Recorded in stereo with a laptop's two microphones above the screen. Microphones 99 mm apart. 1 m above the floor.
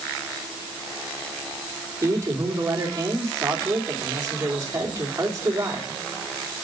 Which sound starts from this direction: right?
A man speaking, at 2.0 s.